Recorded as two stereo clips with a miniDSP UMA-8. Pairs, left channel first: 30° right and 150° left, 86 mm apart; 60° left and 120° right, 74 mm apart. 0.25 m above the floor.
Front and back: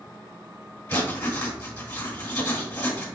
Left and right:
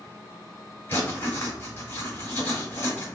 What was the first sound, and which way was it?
Writing, 20° left.